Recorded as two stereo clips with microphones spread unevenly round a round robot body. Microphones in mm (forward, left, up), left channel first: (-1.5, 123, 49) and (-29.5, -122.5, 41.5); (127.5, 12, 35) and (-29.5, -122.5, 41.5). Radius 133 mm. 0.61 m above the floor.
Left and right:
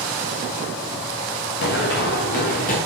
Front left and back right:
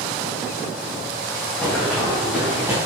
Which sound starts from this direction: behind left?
Running footsteps, at 1.6 s.